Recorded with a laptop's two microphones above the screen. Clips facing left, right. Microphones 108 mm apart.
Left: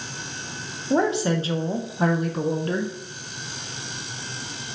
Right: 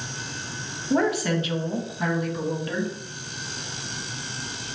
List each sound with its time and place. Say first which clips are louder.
0.9 s a woman speaking: left 1 dB; 25° left (ahead or behind), 0.9 m; by 2.9 s 40° left (ahead or behind), 0.9 m